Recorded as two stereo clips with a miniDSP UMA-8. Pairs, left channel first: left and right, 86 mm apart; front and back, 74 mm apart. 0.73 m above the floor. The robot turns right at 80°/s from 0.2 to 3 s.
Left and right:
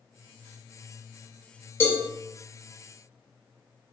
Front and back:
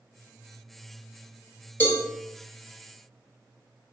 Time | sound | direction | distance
1.8 | a cowbell | 50° left | 0.8 m